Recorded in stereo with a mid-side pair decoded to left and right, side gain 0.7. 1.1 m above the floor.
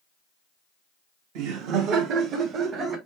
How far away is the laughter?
About 1.4 m.